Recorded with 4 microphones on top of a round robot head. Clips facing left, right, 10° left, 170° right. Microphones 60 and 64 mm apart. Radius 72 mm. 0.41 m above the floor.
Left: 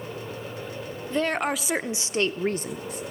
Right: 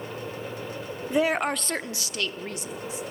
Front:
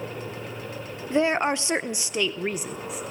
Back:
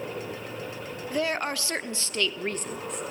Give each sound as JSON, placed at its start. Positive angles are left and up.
{"t": 1.1, "sound": "a woman speaking", "azimuth_deg": -30, "distance_m": 0.9}